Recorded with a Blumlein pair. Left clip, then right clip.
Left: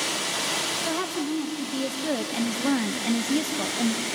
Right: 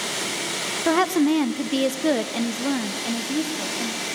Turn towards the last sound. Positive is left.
turn(degrees=25)